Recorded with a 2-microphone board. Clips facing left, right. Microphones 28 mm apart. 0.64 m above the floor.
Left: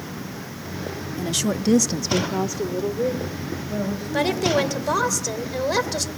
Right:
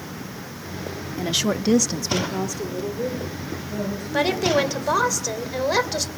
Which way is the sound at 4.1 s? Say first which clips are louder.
Right 1 dB; 10° right (ahead or behind).